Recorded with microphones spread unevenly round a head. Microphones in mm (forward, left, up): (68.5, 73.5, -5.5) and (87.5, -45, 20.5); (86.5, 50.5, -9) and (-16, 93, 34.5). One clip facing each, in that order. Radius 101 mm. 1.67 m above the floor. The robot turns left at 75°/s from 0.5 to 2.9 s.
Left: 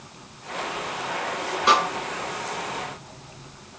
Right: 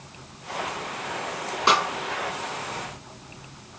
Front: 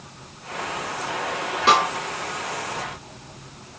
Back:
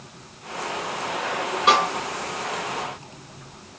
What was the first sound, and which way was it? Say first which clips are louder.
A snare drum: left 2 dB, front 1 dB; 90° right.